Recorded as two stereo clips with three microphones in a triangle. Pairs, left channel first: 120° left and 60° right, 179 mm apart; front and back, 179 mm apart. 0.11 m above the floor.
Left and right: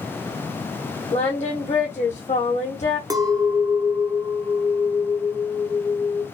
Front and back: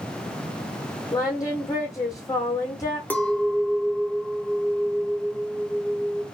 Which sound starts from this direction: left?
Singing, at 1.1 s.